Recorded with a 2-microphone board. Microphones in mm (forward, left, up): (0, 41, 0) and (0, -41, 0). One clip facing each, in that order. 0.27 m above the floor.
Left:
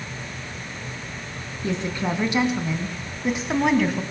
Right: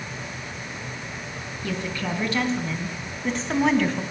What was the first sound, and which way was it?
A woman speaking, 25° left (ahead or behind).